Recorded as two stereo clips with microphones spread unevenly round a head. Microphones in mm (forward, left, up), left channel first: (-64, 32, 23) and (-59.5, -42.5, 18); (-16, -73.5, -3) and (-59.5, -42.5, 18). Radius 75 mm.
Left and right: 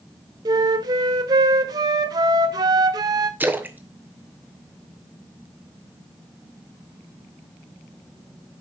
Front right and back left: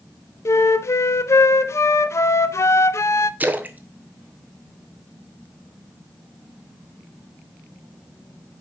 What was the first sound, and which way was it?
A flute, 75° right.